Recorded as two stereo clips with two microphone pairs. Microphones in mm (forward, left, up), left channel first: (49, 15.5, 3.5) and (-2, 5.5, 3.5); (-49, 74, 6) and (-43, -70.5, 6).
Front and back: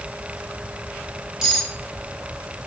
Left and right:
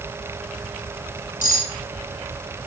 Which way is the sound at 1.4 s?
110° left.